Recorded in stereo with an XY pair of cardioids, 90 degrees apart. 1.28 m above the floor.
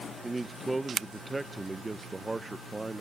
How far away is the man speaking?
About 0.6 m.